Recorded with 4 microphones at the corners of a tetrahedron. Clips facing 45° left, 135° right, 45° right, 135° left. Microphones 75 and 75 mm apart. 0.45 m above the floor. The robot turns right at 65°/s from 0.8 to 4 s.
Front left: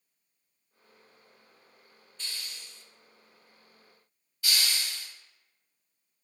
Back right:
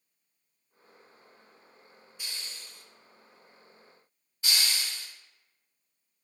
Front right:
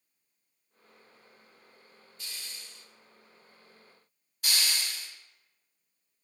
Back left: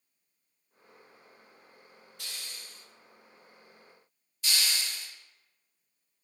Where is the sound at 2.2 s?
150° left, 0.5 m; by 2.9 s 170° right, 0.5 m.